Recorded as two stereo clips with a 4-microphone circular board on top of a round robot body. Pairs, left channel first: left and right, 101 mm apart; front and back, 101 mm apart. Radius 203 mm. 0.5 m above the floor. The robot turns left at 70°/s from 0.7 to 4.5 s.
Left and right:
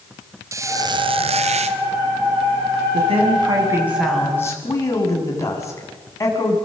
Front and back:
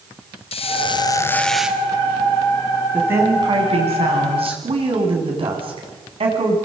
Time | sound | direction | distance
0.5 | a squeak | 30° right | 0.7 m
2.9 | a woman speaking | 100° right | 7 m